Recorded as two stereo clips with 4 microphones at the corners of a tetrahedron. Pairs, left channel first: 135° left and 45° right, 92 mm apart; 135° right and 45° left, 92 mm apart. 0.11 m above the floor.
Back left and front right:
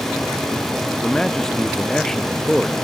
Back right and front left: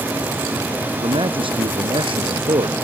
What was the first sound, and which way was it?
A man speaking, 50° left.